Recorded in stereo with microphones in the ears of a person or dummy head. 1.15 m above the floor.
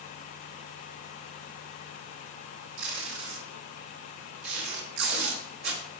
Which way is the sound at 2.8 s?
75° right (ahead or behind).